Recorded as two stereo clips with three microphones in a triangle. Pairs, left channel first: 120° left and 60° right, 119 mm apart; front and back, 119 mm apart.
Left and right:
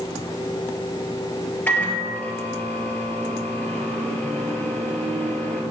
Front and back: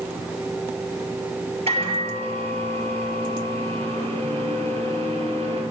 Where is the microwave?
165° right, 2.5 m.